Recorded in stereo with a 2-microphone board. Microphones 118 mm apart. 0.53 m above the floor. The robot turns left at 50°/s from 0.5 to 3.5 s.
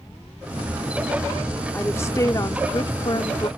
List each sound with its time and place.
1.7 s a woman speaking: 160° left; by 3.5 s 70° left